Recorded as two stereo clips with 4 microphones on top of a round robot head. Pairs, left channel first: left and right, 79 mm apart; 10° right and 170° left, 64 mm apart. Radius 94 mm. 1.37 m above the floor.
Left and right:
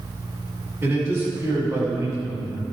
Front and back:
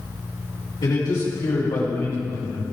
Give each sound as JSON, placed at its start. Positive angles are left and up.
{"t": 0.8, "sound": "a man speaking", "azimuth_deg": -30, "distance_m": 6.0}